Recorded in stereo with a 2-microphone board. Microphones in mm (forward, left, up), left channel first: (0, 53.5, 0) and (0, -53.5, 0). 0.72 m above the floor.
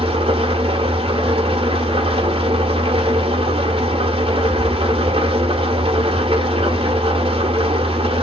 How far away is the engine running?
About 1.1 m.